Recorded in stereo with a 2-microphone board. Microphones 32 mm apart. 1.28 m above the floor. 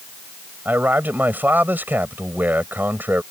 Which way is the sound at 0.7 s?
80° right.